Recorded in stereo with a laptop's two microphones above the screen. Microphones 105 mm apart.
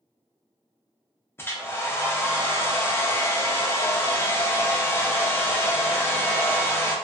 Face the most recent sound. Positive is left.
turn(degrees=25)  # may be behind; listen again after turning